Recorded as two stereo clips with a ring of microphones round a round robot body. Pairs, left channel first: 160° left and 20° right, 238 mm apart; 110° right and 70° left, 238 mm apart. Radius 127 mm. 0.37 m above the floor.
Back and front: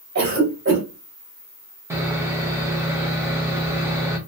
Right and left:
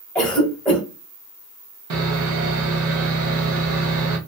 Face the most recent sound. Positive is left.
turn(degrees=55)